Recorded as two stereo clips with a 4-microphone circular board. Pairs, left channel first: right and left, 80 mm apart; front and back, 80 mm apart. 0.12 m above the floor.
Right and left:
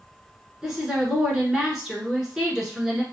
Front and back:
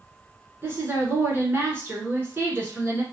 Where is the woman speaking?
165° left, 1.2 m.